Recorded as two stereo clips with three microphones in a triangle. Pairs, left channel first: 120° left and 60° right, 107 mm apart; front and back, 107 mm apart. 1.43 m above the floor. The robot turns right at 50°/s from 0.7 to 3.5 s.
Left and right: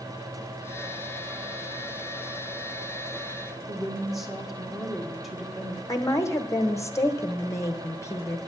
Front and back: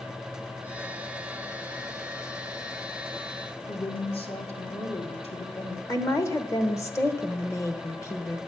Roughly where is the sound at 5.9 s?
Ahead left.